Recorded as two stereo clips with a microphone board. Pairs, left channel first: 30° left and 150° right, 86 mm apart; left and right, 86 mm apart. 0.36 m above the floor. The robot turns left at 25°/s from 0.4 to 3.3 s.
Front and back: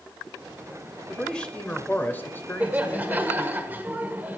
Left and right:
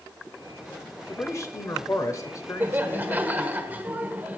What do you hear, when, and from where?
1.1 s a man speaking: 110° left, 1.0 m; by 3.6 s 55° left, 1.0 m
2.6 s laughter: 110° right, 0.9 m; by 4.4 s 125° right, 0.9 m